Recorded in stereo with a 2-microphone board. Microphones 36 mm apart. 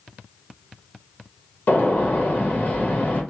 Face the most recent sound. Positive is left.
turn(degrees=50)  # may be behind; listen again after turning